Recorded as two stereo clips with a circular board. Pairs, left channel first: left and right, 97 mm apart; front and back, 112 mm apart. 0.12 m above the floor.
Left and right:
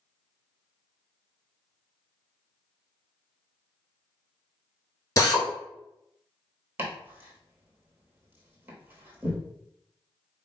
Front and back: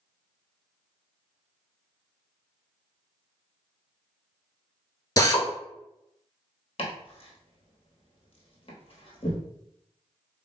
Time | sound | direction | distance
5.2 | a drill | 45° left | 0.7 m
6.8 | chopping | 25° right | 1.1 m